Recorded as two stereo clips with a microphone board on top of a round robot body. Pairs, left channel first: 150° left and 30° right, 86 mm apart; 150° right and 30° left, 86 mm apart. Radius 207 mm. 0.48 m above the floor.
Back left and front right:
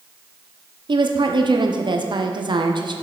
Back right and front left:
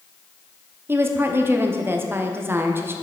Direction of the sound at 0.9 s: 30° right.